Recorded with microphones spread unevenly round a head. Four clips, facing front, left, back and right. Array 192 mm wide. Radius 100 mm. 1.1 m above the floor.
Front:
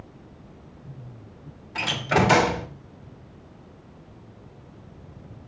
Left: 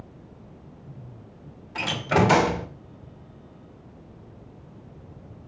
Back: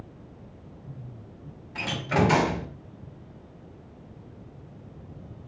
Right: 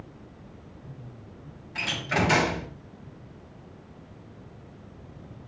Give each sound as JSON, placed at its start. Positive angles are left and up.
{"t": 1.8, "sound": "a door slam", "azimuth_deg": 40, "distance_m": 3.0}